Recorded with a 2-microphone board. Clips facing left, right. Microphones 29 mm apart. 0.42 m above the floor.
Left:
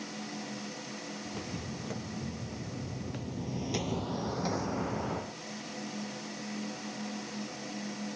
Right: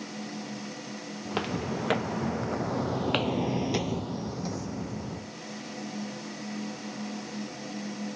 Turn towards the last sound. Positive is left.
turn(degrees=35)  # may be behind; listen again after turning